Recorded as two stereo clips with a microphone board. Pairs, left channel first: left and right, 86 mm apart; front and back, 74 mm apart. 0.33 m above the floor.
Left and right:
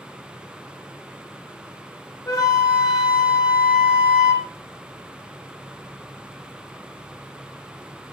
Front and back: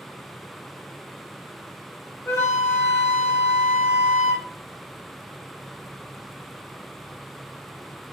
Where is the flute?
45° left, 0.9 m.